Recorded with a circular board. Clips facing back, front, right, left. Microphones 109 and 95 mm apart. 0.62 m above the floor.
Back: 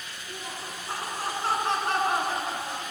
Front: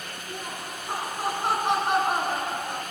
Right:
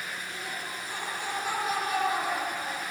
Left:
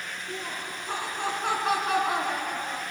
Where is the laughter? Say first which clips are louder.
Front 2 dB, left 2 dB; 65° left, 6.5 m; by 2.8 s 80° left, 6 m.